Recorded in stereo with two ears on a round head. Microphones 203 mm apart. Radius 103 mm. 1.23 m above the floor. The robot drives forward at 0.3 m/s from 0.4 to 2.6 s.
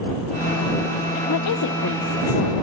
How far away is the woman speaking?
About 0.5 m.